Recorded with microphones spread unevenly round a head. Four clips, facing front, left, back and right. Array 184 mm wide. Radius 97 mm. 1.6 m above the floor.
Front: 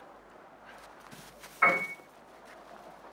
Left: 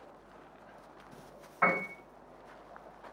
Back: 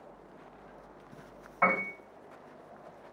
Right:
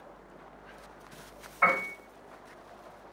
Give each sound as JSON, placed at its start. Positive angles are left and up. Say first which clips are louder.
{"t": 1.6, "sound": "a piano", "louder": "right 2 dB, front 1 dB", "azimuth_deg": 160, "distance_m": 2.5}